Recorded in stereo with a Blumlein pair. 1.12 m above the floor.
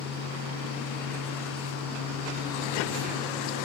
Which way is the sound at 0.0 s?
60° right.